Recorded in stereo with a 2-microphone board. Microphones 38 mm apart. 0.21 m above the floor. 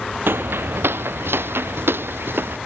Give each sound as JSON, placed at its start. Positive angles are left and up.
{"t": 0.3, "sound": "footsteps", "side_deg": -70}